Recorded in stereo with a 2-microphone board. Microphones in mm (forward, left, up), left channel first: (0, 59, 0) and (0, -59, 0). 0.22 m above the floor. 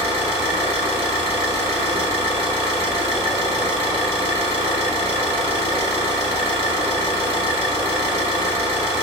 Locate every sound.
0.0 s an engine running: 70° right (ahead or behind), 1.0 m